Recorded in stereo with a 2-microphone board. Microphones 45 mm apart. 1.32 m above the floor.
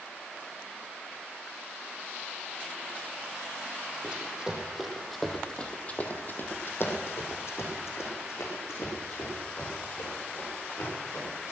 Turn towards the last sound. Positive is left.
turn(degrees=70)  # may be behind; listen again after turning